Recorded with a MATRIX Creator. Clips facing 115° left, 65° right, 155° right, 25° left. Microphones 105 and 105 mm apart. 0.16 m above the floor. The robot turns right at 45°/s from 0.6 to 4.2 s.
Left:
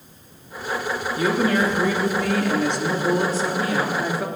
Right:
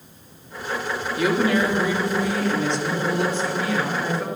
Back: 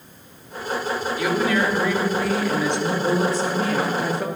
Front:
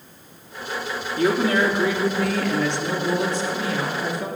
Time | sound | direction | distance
1.2 | a woman speaking | 60° left | 3 m